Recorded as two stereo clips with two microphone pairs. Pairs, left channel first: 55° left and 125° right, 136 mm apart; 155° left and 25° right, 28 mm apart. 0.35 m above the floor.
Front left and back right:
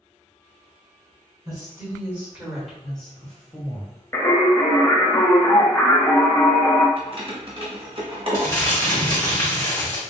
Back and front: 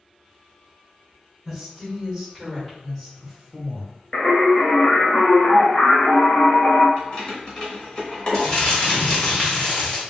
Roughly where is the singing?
Behind left.